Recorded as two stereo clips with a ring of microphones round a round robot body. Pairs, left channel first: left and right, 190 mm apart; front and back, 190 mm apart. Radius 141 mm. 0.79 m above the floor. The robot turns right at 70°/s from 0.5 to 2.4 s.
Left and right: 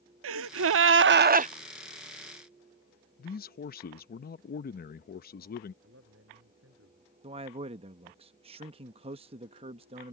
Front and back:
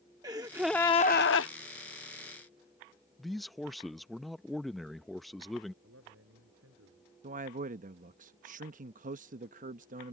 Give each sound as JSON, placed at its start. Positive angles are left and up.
{"t": 0.2, "sound": "a gasp", "azimuth_deg": -100}
{"t": 3.2, "sound": "a man speaking", "azimuth_deg": 90}
{"t": 5.8, "sound": "a man speaking", "azimuth_deg": -135}
{"t": 7.2, "sound": "a man speaking", "azimuth_deg": -145}